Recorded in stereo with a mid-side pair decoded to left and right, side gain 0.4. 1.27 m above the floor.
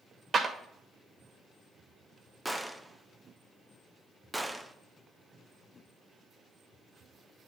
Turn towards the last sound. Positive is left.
turn(degrees=0)